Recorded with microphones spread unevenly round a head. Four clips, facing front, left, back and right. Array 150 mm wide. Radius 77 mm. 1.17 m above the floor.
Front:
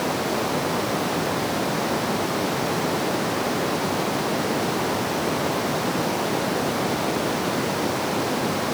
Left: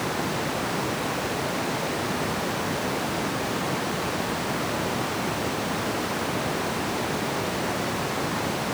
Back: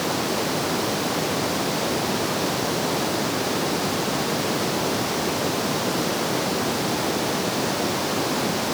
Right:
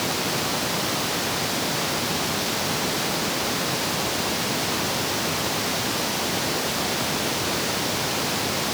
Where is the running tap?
No running tap in this recording.